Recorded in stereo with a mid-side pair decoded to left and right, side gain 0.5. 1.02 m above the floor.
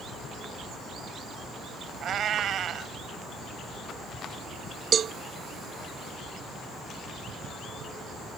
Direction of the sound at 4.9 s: 50° right.